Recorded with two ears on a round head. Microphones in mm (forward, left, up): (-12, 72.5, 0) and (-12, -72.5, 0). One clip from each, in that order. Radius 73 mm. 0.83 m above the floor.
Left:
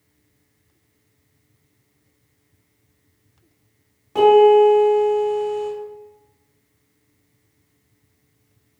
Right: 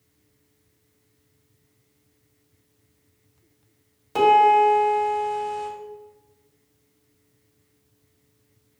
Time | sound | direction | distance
4.2 | a piano | 80° right | 1.9 m